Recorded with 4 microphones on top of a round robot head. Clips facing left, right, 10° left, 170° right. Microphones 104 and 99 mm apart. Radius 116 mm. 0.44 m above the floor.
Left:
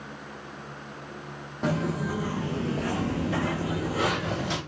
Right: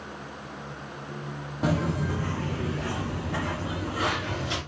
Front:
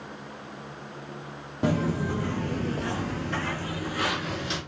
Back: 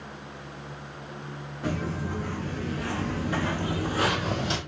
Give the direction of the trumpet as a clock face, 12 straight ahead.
No trumpet in this recording.